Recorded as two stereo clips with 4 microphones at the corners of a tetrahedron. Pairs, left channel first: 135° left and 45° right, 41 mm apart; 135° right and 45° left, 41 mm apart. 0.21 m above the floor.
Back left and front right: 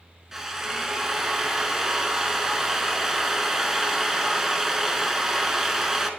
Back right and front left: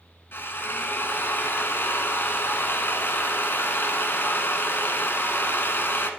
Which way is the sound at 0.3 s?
125° right.